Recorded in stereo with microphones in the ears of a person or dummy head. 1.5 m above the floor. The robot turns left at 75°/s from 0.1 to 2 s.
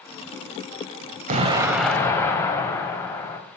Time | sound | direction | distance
1.3 | an explosion | 140° right | 0.8 m